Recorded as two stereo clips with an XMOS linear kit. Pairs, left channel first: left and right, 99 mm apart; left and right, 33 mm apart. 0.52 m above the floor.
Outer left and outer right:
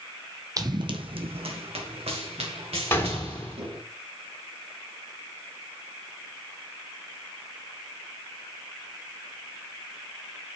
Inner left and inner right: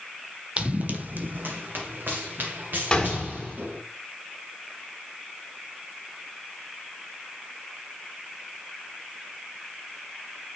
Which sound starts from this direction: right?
Running footsteps, at 0.6 s.